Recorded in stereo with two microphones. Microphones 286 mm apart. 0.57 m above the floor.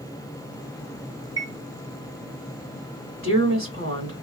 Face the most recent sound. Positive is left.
turn(degrees=-45)  # may be behind; listen again after turning